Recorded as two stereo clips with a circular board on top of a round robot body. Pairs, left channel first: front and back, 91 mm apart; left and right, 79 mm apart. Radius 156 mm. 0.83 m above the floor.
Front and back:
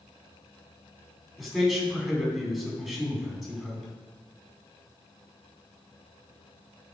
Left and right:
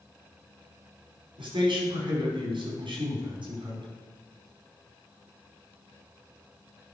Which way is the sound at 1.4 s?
90° right.